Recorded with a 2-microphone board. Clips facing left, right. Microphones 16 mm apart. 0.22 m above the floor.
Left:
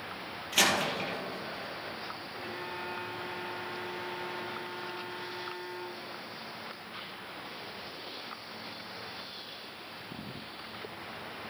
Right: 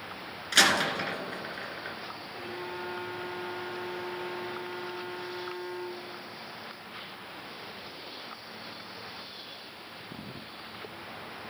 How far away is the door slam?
About 2 m.